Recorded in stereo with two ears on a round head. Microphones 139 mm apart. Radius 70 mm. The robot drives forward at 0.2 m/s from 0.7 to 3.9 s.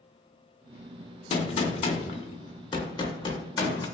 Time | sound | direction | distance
1.3 | a gunshot | 35° left (ahead or behind) | 0.6 m